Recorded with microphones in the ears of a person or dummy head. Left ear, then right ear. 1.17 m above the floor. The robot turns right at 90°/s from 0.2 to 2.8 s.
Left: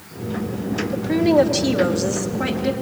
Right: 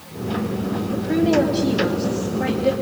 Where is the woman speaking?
10° left, 2.5 m; by 2.7 s 175° left, 2.5 m.